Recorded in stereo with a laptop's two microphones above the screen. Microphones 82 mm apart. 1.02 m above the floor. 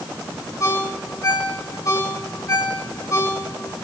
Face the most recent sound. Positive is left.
turn(degrees=45)  # may be behind; listen again after turning